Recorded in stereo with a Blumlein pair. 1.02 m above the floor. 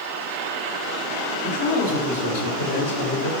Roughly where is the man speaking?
Ahead left.